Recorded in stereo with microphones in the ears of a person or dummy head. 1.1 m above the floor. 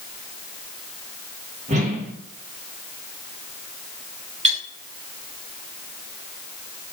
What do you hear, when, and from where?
1.7 s a whoosh: 40° right (ahead or behind), 0.8 m
4.4 s cutlery clinking: 40° right (ahead or behind), 1.1 m